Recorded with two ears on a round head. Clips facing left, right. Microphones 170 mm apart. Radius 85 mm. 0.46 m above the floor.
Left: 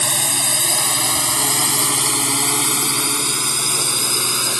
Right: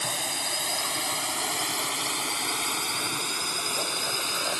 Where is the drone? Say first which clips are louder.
Left 7 dB; 65° left (ahead or behind); by 4.6 s 55° left (ahead or behind).